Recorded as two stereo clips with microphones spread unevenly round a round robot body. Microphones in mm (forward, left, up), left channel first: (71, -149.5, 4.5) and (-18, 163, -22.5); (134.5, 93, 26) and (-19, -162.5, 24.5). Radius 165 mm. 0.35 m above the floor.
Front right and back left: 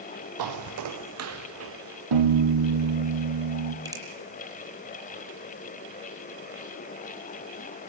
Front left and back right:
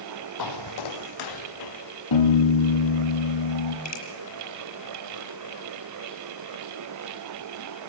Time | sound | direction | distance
0.4 | footsteps | 85° left | 0.7 m
2.1 | a piano | 90° left | 3.5 m
3.9 | a finger snap | 25° left | 7.5 m